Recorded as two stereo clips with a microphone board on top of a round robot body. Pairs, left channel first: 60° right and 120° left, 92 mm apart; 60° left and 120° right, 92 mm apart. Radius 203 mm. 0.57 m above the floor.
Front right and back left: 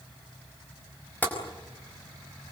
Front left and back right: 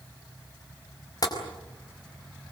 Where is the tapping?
15° left, 5 m.